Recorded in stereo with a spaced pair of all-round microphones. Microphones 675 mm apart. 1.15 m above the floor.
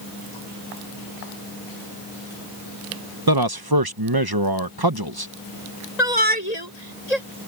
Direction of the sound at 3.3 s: 35° right (ahead or behind).